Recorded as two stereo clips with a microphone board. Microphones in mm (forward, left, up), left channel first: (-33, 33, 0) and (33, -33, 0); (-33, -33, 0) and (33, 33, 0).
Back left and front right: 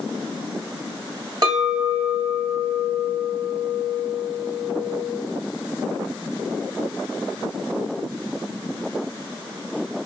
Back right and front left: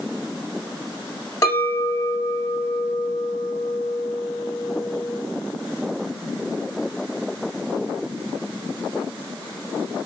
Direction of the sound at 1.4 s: 85° right.